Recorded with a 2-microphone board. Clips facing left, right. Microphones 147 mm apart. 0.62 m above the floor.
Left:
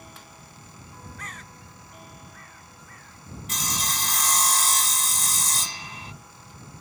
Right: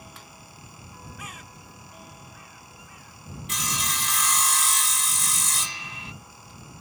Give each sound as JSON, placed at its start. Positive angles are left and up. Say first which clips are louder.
{"t": 1.2, "sound": "a bird", "louder": "even", "side_deg": -10}
{"t": 3.5, "sound": "sawing", "louder": "left 1 dB", "side_deg": 40}